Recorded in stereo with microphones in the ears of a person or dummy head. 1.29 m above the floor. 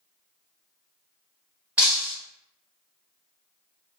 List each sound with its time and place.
1.8 s breaking glass: 5° right (ahead or behind), 1.0 m